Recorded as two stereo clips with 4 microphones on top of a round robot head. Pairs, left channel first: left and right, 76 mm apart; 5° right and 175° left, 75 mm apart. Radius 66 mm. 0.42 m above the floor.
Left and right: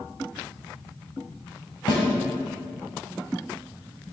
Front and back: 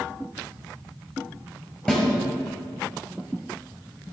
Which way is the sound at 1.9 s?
70° left.